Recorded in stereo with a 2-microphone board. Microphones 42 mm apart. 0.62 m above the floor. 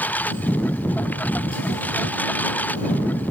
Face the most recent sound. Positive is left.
turn(degrees=45)  # may be behind; listen again after turning